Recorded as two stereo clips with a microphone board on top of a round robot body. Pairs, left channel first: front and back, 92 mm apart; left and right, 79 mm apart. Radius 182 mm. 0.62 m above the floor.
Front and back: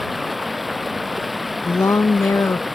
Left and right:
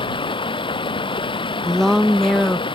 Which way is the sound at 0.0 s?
90° left.